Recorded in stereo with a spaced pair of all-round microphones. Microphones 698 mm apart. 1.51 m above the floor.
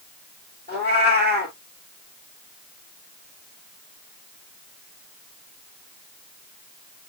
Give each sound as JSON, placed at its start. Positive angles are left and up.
{"t": 0.7, "sound": "a cat meowing", "side_deg": -15, "distance_m": 1.9}